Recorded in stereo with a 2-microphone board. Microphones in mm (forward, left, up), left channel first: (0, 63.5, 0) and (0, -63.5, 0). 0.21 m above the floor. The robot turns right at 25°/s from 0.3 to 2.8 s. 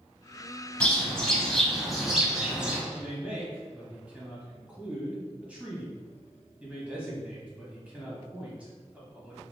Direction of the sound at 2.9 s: 10° right (ahead or behind).